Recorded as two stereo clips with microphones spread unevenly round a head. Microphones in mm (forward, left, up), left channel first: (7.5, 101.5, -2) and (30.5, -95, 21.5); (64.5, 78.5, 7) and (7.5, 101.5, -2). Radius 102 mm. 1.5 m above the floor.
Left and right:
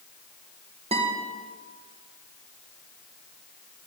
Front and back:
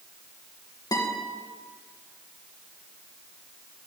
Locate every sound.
0.9 s a guitar: 25° right, 2.0 m